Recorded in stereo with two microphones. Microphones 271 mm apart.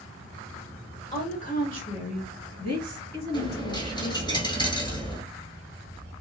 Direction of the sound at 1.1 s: 30° left (ahead or behind).